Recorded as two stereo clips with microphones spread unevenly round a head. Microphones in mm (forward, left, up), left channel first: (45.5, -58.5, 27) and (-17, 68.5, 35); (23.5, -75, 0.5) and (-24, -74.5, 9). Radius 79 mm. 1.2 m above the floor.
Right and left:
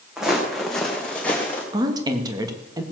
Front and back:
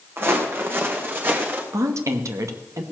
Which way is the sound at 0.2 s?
160° right.